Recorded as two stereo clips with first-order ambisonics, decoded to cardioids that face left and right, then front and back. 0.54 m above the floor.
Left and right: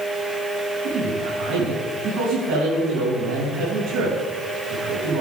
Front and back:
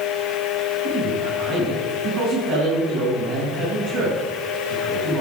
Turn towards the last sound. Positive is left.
turn(degrees=-120)